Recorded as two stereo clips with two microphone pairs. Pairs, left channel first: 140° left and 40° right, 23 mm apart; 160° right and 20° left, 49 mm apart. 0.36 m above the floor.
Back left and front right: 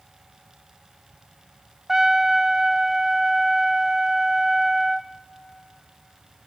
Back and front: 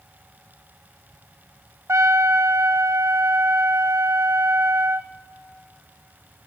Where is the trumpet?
35° left, 0.6 m.